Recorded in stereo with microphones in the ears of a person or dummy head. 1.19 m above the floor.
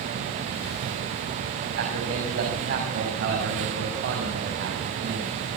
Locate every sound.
1.8 s a man speaking: 60° right (ahead or behind), 6.5 m